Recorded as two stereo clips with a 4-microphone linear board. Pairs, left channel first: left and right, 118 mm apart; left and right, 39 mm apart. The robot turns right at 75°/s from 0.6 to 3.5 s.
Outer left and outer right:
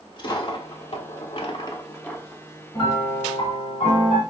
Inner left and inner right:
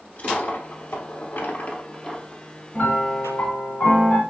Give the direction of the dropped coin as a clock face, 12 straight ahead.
10 o'clock.